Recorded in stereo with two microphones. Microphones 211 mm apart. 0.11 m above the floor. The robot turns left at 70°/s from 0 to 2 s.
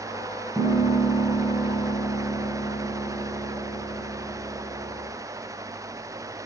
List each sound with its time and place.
0.6 s a piano: centre (ahead or behind), 1.1 m; by 5.1 s 20° left (ahead or behind), 1.1 m